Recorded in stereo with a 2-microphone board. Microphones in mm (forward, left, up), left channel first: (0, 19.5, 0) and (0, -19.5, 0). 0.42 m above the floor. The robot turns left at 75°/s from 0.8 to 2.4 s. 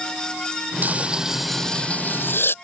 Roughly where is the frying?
Behind right.